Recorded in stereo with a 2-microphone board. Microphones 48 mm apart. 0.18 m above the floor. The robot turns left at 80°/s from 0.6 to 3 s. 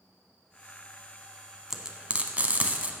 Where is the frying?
10° right (ahead or behind), 0.7 m; by 2.9 s 30° right (ahead or behind), 0.7 m.